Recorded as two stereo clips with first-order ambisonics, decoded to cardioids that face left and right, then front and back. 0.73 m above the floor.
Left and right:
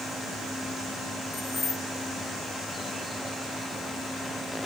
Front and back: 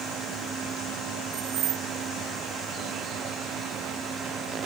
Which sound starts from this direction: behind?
Keys jangling, at 1.3 s.